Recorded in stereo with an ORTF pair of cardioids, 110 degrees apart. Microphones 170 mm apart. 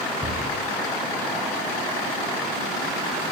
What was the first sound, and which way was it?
A cupboard door, 5° right.